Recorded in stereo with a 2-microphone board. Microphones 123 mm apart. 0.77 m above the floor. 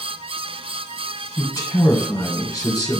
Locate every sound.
1.4 s a man speaking: 30° left (ahead or behind), 2.5 m